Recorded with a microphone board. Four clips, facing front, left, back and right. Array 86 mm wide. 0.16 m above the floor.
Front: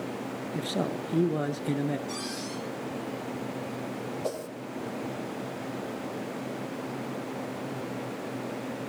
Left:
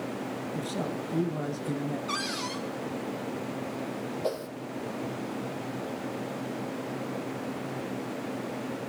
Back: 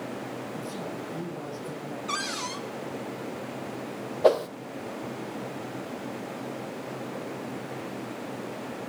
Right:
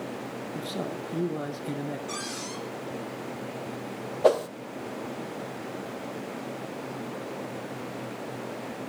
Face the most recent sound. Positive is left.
turn(degrees=-140)